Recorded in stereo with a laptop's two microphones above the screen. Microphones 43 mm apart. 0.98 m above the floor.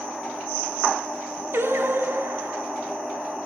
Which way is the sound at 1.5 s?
55° right (ahead or behind).